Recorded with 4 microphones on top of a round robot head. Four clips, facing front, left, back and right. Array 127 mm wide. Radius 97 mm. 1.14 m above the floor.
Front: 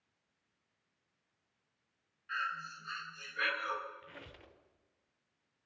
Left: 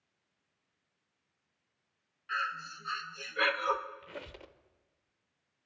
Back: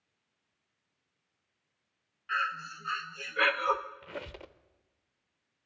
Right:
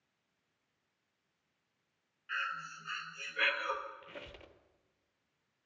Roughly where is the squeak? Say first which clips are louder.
Left 4 dB, back 11 dB; behind.